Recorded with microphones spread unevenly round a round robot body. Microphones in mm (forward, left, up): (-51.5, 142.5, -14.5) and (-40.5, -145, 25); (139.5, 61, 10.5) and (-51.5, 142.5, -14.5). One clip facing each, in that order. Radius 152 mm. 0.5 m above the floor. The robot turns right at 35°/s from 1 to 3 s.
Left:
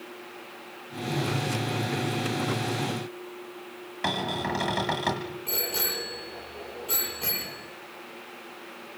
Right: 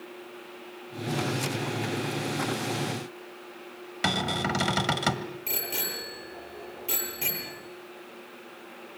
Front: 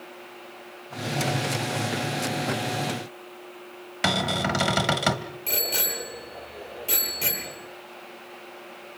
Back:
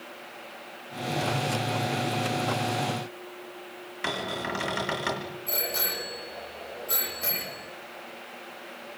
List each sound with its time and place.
4.0 s a cupboard door: 35° right, 1.5 m
5.5 s a bicycle bell: 30° right, 9.5 m